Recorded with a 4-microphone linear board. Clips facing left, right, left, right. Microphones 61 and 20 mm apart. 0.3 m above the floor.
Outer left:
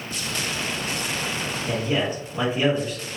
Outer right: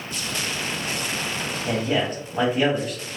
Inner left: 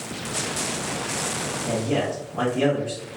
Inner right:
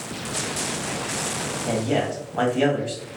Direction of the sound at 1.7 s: 50° right (ahead or behind).